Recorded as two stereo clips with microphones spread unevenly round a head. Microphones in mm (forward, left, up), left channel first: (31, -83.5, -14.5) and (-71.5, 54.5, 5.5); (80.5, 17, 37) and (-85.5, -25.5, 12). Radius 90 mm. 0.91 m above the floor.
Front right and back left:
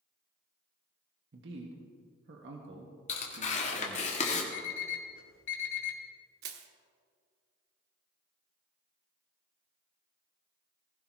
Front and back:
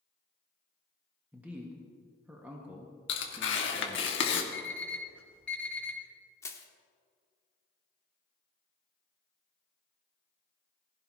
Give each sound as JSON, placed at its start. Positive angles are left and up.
{"t": 1.3, "sound": "a man speaking", "azimuth_deg": 120, "distance_m": 1.6}
{"t": 3.1, "sound": "tearing paper", "azimuth_deg": -5, "distance_m": 1.8}
{"t": 4.5, "sound": "an alarm clock", "azimuth_deg": -65, "distance_m": 2.0}
{"t": 6.4, "sound": "crushing", "azimuth_deg": 90, "distance_m": 1.2}